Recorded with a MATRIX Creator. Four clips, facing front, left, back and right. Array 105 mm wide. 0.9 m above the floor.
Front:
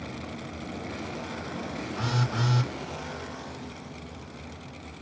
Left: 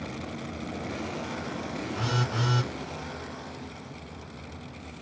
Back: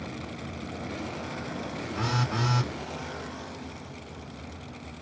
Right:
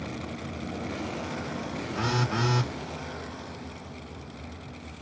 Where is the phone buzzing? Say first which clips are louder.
Right 3 dB, back 1 dB; 100° right, 1.7 m.